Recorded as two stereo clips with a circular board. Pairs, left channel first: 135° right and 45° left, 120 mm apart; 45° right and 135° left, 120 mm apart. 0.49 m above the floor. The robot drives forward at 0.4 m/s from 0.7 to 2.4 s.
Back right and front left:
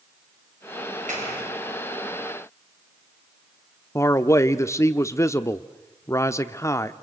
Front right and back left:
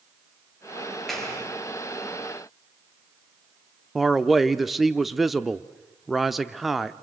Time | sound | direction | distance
1.1 | a clap | 45° left | 7.5 m
4.0 | a man speaking | 140° right | 0.7 m